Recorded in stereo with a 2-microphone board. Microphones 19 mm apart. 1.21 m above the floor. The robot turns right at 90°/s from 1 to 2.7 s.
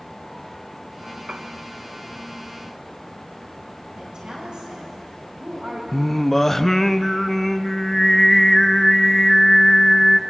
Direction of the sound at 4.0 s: 45° right (ahead or behind).